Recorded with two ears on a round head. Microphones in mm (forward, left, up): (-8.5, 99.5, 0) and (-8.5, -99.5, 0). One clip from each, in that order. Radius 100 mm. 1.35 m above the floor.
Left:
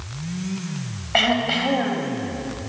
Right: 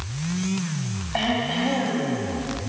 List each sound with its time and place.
1.1 s throat clearing: 65° left (ahead or behind), 3.5 m